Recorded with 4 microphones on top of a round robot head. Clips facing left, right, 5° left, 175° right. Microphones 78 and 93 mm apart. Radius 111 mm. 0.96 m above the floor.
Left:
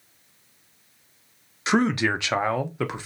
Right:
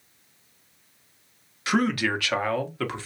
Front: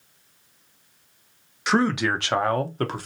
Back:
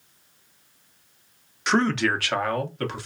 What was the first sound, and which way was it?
A man speaking, 90° left.